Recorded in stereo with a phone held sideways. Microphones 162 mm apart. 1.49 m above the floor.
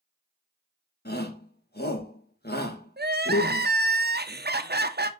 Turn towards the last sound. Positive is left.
turn(degrees=-85)